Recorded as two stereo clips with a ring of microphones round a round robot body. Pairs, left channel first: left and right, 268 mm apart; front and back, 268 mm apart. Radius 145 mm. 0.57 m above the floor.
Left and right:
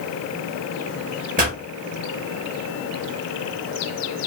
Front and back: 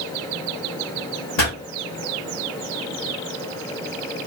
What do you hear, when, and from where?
1.4 s a pop: 30° right, 1.9 m